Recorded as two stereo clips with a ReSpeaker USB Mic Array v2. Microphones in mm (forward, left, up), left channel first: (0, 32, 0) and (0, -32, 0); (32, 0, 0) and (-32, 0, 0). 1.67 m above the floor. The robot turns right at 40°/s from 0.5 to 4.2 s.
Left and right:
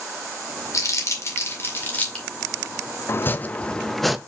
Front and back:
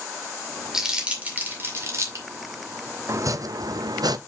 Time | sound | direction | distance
0.7 | crumpling | 100° left | 2 m
3.1 | chopping | 140° left | 0.5 m